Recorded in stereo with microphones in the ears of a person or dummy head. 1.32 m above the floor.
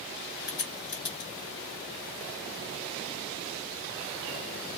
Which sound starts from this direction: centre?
A crack, at 0.5 s.